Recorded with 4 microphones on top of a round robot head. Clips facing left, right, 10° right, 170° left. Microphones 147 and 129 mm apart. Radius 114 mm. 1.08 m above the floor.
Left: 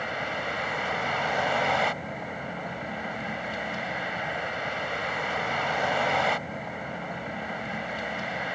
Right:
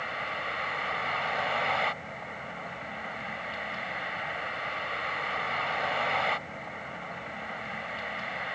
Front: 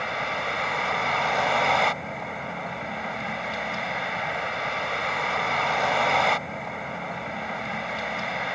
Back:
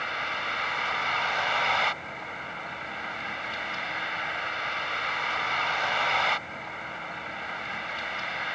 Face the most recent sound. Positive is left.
turn(degrees=35)